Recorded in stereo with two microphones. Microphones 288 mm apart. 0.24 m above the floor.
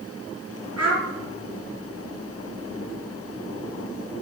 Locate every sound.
0.8 s a child speaking: 70° right (ahead or behind), 3 m